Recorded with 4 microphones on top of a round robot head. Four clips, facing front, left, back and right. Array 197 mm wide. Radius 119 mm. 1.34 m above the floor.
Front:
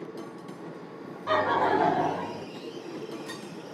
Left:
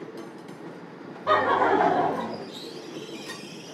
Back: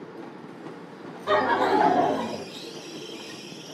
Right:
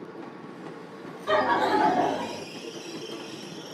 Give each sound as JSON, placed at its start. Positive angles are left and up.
{"t": 1.3, "sound": "laughter", "azimuth_deg": 105, "distance_m": 1.7}